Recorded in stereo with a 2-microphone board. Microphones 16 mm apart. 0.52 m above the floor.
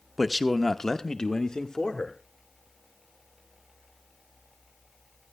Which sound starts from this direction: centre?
A man speaking, at 0.2 s.